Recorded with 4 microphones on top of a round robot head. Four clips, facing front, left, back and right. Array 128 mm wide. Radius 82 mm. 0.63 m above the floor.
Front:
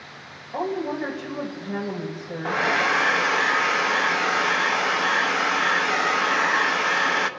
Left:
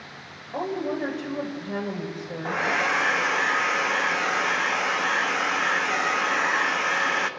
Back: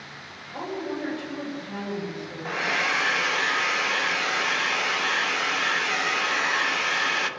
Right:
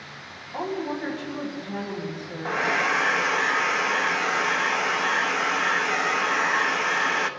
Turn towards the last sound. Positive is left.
turn(degrees=5)